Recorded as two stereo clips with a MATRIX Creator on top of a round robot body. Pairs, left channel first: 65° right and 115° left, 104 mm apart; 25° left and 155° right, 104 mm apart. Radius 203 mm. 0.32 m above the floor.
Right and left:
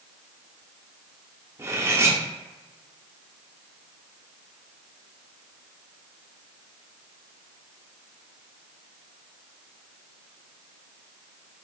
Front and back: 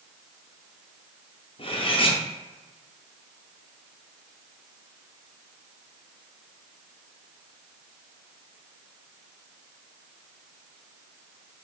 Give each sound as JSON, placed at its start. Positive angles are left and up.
{"t": 1.6, "sound": "cutlery clinking", "azimuth_deg": 45, "distance_m": 0.9}